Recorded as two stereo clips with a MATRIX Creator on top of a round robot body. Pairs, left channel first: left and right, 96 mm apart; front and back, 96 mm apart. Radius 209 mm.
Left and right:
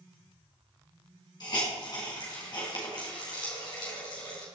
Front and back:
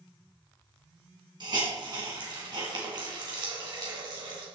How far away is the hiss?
About 3.5 m.